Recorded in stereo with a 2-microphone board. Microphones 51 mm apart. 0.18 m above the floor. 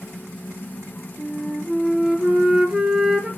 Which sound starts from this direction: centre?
A flute, at 1.2 s.